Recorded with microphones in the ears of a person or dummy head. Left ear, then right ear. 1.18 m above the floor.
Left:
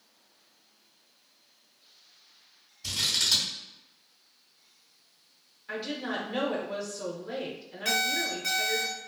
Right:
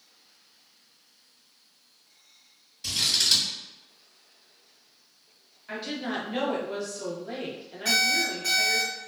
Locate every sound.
2.8 s scissors: 45° right (ahead or behind), 1.7 m
5.7 s a woman speaking: 5° right (ahead or behind), 0.7 m
7.8 s an alarm clock: centre (ahead or behind), 0.8 m